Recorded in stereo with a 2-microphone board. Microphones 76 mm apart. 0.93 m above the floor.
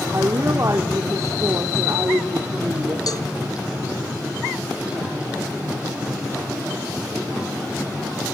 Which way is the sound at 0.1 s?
40° right (ahead or behind).